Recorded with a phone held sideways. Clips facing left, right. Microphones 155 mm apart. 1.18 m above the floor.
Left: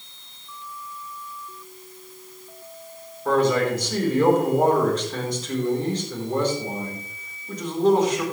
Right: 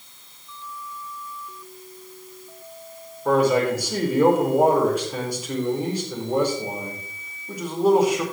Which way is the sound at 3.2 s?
10° right (ahead or behind).